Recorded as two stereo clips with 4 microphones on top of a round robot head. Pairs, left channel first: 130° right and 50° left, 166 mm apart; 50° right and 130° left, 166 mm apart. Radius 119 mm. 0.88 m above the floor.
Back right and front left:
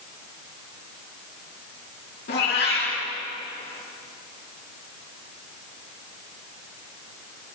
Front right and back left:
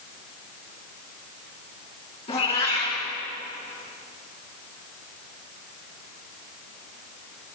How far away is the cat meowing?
About 6.5 m.